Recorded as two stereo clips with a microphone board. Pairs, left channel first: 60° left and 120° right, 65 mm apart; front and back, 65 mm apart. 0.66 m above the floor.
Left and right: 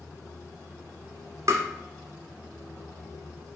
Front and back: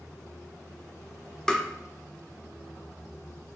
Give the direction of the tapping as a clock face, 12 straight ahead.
3 o'clock.